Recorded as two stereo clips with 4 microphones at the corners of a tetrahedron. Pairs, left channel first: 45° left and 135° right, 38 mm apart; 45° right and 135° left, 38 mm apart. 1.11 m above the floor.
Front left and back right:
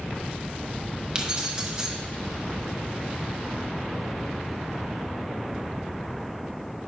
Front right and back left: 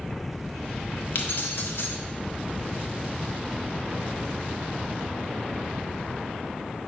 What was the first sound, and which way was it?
Keys jangling, 65° right.